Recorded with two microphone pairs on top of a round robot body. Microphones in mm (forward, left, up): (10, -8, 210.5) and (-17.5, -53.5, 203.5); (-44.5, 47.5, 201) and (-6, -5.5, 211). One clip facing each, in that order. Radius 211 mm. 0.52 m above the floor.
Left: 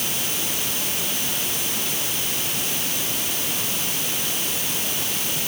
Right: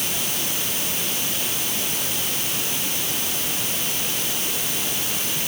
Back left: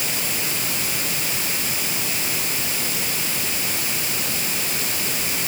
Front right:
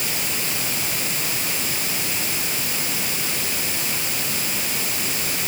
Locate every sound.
Only background noise.